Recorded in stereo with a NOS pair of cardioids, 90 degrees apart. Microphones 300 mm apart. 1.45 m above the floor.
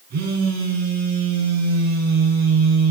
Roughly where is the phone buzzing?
Ahead right.